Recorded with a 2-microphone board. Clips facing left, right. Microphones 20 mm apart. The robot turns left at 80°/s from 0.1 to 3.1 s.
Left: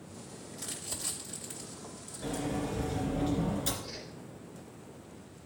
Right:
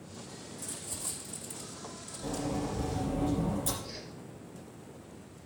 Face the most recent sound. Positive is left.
turn(degrees=35)  # may be behind; listen again after turning